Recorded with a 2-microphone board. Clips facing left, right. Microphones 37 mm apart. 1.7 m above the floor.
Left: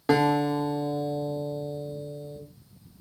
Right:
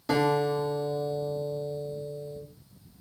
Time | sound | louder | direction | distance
0.1 | a guitar | left 2 dB | 40° left (ahead or behind) | 1.0 m